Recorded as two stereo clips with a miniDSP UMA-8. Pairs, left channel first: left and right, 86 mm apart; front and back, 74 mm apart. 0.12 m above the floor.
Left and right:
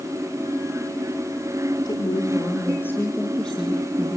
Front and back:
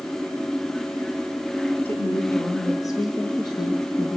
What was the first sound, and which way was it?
A woman speaking, 65° left.